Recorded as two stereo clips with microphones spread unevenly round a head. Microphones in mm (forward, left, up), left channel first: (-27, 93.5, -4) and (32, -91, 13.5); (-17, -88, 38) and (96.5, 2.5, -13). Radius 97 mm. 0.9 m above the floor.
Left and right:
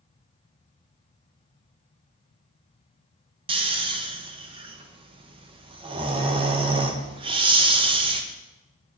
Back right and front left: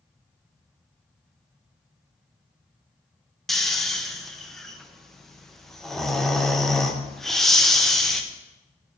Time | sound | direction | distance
3.5 | snoring | 20° right | 0.7 m